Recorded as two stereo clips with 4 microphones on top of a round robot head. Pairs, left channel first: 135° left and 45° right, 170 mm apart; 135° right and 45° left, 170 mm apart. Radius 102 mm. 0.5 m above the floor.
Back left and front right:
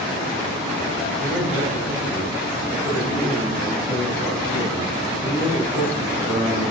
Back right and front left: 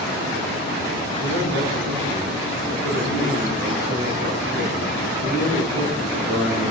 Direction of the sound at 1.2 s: 40° left.